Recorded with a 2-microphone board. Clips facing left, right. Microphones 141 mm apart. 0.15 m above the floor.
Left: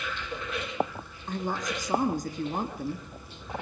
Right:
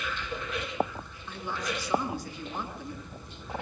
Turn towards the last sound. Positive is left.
turn(degrees=45)  # may be behind; listen again after turning